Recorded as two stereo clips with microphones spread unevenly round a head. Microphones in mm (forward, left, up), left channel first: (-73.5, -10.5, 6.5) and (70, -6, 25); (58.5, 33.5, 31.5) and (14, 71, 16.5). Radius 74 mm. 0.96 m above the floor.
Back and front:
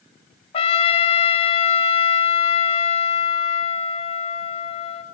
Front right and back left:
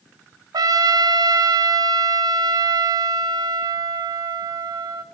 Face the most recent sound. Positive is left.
turn(degrees=125)